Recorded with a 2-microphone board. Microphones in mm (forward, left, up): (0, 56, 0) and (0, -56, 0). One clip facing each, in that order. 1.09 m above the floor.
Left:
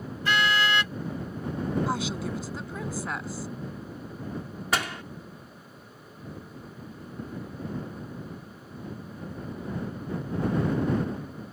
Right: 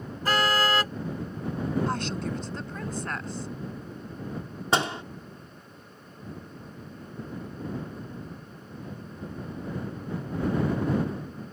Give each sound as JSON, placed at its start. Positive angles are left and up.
{"t": 0.2, "sound": "a car horn", "side_deg": -40}
{"t": 1.9, "sound": "a woman speaking", "side_deg": 5}
{"t": 4.7, "sound": "a door slam", "side_deg": -30}